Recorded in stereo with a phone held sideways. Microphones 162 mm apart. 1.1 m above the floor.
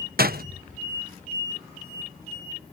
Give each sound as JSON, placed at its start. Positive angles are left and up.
{"t": 0.2, "sound": "a door slam", "side_deg": -70}